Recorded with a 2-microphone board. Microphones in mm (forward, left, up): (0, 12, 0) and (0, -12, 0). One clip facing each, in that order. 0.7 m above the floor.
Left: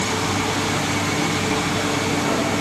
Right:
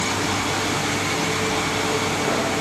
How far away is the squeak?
No squeak in this recording.